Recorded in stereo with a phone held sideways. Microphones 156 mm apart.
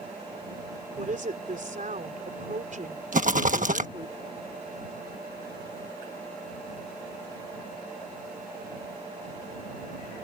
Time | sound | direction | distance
1.0 | a woman speaking | 55° right (ahead or behind) | ?
3.1 | a rattle | 55° right (ahead or behind) | ?